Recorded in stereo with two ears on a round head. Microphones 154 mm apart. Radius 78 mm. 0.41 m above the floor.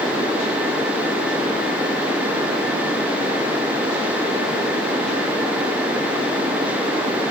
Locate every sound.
Only background noise.